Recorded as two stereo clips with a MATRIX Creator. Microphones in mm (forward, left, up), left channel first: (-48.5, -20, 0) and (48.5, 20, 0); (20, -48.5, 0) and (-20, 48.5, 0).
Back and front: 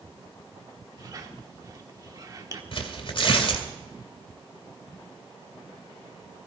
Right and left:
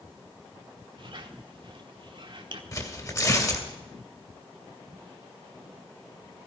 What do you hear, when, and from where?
1.0 s a squeak: 75° left, 1.4 m
2.7 s tearing paper: 125° right, 2 m